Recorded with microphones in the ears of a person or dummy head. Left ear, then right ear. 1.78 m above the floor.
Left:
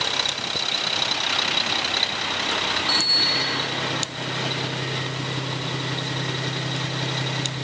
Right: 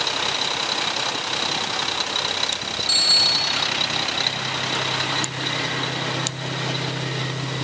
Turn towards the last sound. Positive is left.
turn(degrees=-15)  # may be behind; listen again after turning